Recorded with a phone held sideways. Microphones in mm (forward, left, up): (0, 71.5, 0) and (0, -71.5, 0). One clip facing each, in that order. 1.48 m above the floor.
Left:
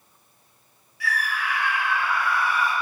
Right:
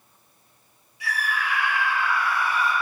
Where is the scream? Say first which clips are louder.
Even; 20° right (ahead or behind), 1.8 m; by 2.7 s 10° left (ahead or behind), 1.7 m.